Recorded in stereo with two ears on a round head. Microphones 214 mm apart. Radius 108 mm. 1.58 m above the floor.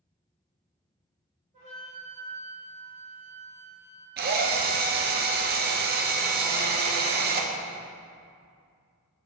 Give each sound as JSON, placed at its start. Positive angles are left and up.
{"t": 1.5, "sound": "a flute", "side_deg": -30, "distance_m": 3.0}
{"t": 4.2, "sound": "a drill", "side_deg": -40, "distance_m": 0.8}